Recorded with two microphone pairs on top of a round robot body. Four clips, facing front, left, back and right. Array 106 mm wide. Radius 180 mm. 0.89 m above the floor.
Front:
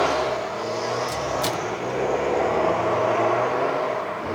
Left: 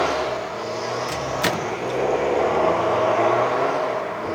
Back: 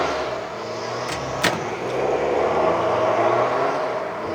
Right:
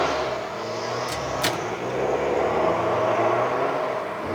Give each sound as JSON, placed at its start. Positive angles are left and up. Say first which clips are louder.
{"t": 1.1, "sound": "a microwave", "louder": "left 2 dB, back 1 dB", "azimuth_deg": 160, "distance_m": 0.8}